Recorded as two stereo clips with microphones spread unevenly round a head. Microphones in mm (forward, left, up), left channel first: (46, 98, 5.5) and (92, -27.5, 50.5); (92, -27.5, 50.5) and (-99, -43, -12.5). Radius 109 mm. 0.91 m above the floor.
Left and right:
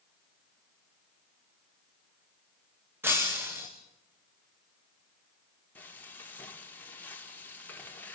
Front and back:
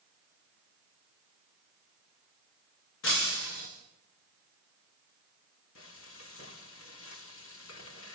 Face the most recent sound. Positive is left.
turn(degrees=40)